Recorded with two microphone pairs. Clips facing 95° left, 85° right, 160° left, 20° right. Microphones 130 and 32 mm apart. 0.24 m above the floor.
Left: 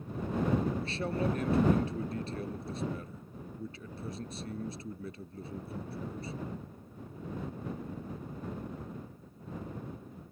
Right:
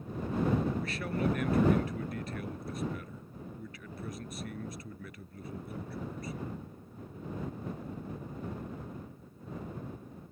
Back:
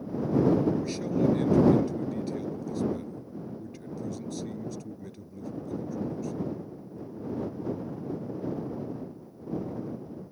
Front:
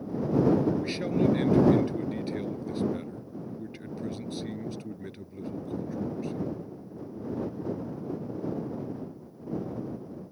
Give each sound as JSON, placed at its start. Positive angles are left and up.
{"t": 0.8, "sound": "a man speaking", "azimuth_deg": 35}